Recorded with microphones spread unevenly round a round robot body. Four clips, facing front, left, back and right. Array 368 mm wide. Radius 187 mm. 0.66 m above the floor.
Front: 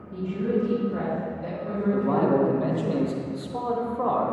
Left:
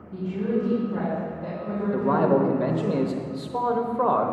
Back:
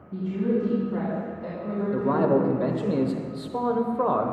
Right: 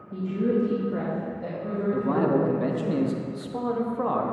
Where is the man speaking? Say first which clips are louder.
Left 3 dB, back 1 dB; 165° left, 0.8 m.